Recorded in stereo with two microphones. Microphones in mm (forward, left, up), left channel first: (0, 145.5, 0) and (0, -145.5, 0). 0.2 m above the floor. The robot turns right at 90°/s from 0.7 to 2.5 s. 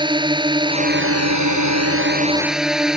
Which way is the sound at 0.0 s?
165° right.